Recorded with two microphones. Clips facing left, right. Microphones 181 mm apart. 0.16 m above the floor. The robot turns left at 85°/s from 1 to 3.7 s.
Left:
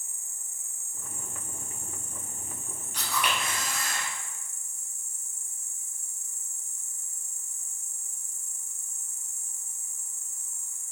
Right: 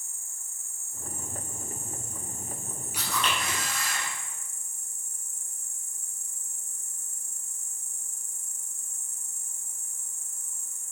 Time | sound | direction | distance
0.0 | an insect | 160° left | 1.1 m
2.9 | a camera shutter | 165° right | 4 m